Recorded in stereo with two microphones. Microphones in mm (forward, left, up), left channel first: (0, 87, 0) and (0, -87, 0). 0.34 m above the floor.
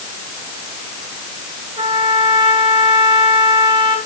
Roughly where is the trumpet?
Right.